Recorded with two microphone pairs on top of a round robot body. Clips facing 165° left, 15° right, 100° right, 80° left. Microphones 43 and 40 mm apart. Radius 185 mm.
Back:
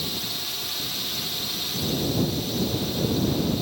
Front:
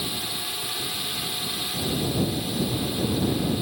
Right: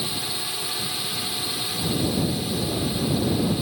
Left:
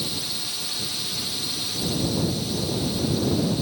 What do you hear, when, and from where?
0.0 s a drone: 60° right